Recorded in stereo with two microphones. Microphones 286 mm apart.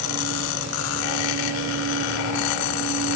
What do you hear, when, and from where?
Only background noise.